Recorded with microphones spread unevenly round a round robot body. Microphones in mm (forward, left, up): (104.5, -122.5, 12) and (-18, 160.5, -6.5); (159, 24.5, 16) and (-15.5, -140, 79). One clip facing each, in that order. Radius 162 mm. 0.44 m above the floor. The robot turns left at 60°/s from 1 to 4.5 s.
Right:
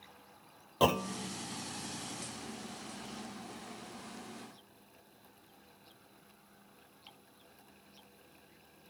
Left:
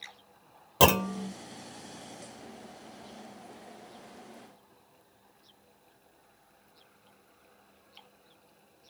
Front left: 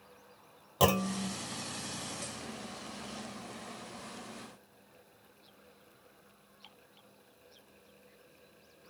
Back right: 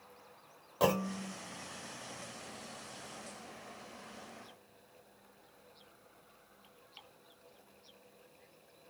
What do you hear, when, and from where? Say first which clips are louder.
0.8 s a clunk: left 5 dB, front left 2 dB; 95° left, 0.5 m; by 1.3 s 75° left, 0.5 m